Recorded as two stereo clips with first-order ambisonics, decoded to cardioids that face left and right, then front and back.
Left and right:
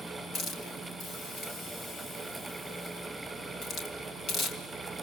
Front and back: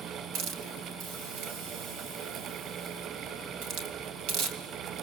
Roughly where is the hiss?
Behind left.